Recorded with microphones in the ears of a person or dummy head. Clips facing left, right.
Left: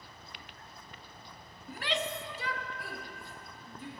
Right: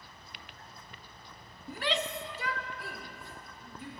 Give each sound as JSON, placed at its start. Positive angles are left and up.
{"t": 1.7, "sound": "a shout", "side_deg": -85, "distance_m": 0.6}